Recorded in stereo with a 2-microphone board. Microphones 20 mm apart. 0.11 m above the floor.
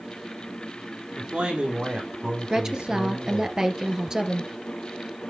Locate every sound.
1.2 s a man speaking: 70° right (ahead or behind), 4 m; by 3.5 s 60° right (ahead or behind), 4 m
2.5 s a woman speaking: 25° right (ahead or behind), 1.9 m